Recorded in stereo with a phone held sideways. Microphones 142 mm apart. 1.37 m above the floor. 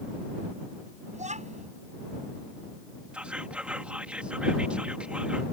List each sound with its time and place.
1.1 s a child speaking: 55° right (ahead or behind)
3.1 s whispering: 10° right (ahead or behind)